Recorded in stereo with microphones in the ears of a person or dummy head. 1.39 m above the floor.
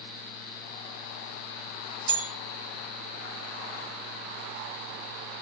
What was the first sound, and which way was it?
A bell, 20° right (ahead or behind).